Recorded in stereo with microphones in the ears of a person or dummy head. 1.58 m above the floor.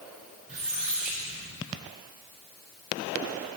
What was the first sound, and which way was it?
A squeak, 45° right (ahead or behind).